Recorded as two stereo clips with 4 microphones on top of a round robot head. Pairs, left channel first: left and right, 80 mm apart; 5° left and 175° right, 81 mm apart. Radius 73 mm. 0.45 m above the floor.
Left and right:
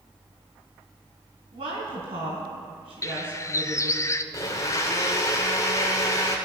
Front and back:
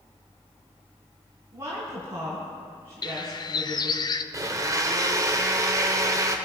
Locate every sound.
1.5 s a woman speaking: 115° right, 4.5 m
3.0 s a bird: 35° left, 0.7 m
4.3 s a blender: 140° left, 1.5 m